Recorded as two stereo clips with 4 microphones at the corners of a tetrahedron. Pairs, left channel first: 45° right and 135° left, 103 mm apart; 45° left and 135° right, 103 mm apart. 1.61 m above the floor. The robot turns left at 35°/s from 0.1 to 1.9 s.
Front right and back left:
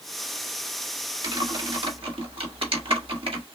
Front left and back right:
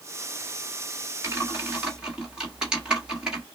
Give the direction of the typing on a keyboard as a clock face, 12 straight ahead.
6 o'clock.